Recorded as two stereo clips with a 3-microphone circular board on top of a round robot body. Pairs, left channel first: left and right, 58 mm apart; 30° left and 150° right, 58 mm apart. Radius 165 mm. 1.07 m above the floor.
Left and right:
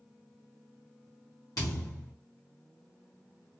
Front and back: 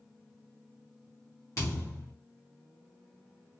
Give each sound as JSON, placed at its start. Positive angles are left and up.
{"t": 1.6, "sound": "a thud", "azimuth_deg": 70, "distance_m": 0.8}